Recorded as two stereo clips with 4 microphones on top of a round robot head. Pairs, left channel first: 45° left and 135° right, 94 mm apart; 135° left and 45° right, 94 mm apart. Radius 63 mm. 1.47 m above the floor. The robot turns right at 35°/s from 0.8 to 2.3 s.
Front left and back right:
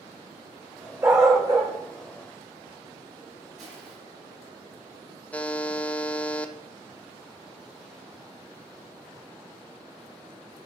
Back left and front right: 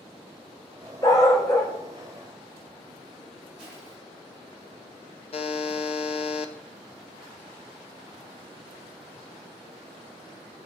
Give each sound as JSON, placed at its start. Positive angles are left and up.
{"t": 1.0, "sound": "a dog barking", "azimuth_deg": 170, "distance_m": 0.9}
{"t": 3.6, "sound": "crushing", "azimuth_deg": -125, "distance_m": 4.5}
{"t": 5.3, "sound": "a buzzer", "azimuth_deg": 120, "distance_m": 0.5}